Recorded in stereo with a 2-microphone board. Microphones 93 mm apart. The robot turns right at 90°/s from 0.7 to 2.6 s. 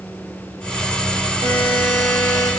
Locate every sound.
1.4 s a buzzer: 90° right, 5.5 m; by 2.5 s 5° left, 5.5 m